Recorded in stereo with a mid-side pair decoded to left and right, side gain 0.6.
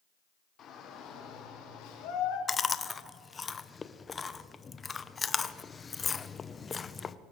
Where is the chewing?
25° left, 0.7 m.